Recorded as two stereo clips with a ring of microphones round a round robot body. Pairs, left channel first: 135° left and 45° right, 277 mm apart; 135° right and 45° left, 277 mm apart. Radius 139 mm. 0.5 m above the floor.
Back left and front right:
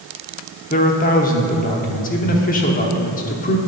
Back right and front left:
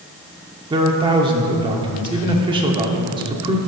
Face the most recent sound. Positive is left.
turn(degrees=105)